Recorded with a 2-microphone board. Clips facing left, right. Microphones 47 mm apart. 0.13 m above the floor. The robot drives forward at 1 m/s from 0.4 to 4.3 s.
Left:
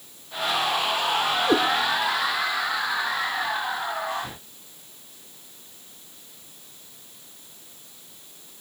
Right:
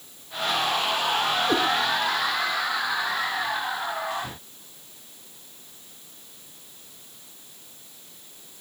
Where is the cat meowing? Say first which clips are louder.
Left 4 dB; 25° left (ahead or behind), 3 m.